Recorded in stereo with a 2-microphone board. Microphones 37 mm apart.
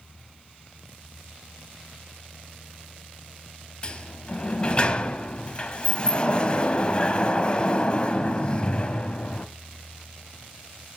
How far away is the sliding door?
About 0.7 m.